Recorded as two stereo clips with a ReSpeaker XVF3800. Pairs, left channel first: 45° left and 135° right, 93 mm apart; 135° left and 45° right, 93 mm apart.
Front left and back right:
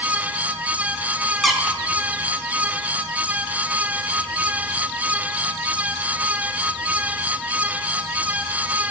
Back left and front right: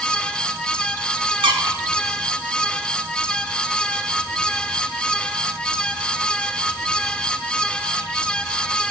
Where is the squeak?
45° right, 1.1 m.